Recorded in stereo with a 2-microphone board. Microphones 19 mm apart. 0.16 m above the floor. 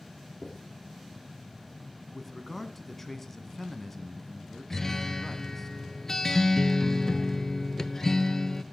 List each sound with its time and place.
0.4 s writing: 10° right (ahead or behind), 6.5 m
2.1 s a man speaking: 20° left (ahead or behind), 1.2 m
4.7 s a guitar: 25° left (ahead or behind), 0.5 m